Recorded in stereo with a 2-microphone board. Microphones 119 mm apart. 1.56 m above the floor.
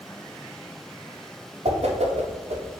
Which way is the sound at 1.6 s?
60° right (ahead or behind).